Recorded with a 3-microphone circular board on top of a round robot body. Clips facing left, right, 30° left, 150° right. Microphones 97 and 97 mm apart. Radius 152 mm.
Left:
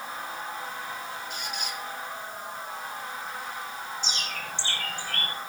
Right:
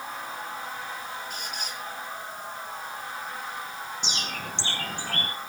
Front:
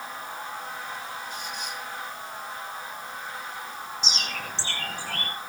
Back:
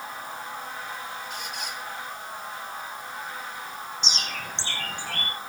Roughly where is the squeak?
Behind right.